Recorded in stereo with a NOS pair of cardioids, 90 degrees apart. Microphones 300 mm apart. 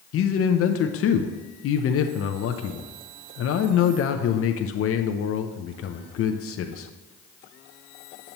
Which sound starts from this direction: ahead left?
A man speaking, at 0.1 s.